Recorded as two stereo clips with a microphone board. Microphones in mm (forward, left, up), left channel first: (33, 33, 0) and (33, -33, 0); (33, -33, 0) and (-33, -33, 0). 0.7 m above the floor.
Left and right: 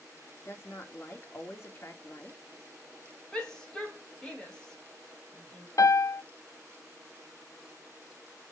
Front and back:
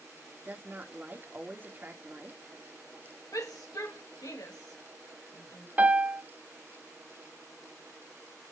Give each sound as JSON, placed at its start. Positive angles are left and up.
{"t": 0.5, "sound": "a woman speaking", "azimuth_deg": 125, "distance_m": 1.9}
{"t": 3.3, "sound": "a shout", "azimuth_deg": 10, "distance_m": 4.5}
{"t": 5.8, "sound": "a piano", "azimuth_deg": 115, "distance_m": 0.6}